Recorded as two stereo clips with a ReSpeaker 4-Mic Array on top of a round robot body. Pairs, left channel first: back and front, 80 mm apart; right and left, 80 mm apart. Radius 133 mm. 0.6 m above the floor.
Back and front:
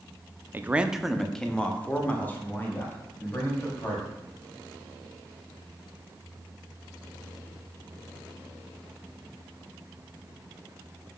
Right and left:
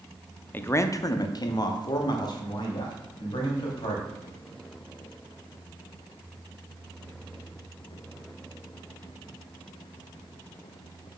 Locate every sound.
0.5 s a man speaking: 45° right, 0.6 m; by 4.1 s 120° right, 2.5 m